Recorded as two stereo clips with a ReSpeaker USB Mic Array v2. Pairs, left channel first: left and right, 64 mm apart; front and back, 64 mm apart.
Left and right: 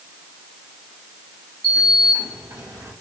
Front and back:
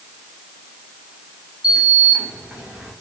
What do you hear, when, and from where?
1.6 s a sliding door: 110° right, 1.6 m